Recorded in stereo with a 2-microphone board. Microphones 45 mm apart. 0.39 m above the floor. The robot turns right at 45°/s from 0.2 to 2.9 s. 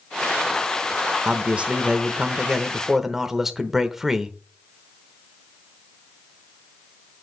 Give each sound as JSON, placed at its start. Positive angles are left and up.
{"t": 1.2, "sound": "a man speaking", "side_deg": -30, "distance_m": 0.9}